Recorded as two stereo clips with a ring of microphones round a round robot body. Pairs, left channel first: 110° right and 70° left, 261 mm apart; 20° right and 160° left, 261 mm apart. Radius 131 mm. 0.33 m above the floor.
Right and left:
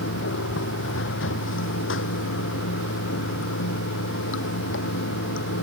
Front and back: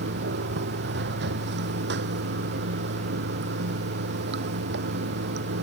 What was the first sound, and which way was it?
Running water, 155° right.